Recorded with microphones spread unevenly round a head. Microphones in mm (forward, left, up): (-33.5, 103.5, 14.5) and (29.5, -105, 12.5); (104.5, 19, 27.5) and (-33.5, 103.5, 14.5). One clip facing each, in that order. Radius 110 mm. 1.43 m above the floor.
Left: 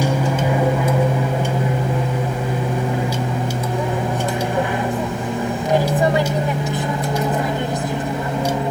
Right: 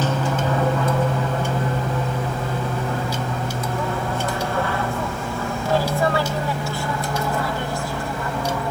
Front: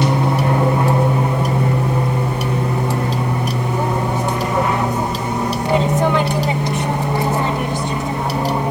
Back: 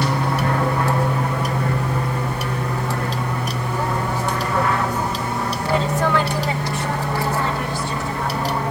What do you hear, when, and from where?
0.0 s an aircraft: 35° left; by 8.7 s 40° left